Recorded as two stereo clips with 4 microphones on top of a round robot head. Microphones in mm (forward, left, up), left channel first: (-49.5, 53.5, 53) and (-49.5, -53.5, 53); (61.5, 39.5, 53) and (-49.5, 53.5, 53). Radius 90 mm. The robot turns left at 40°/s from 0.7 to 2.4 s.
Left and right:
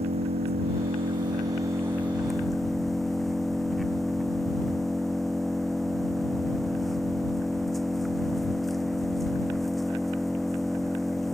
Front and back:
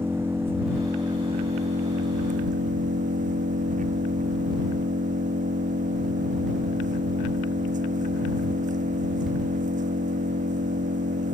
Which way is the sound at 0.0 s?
115° right.